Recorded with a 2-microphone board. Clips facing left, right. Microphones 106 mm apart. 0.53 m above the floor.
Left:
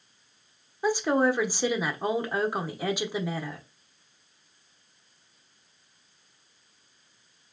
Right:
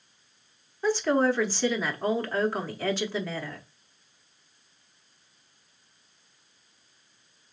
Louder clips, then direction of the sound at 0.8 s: Even; 15° left (ahead or behind).